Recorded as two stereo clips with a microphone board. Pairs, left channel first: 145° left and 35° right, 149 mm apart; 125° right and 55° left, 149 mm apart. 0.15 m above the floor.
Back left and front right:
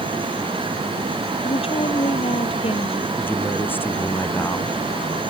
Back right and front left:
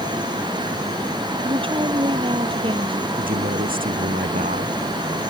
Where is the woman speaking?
105° left.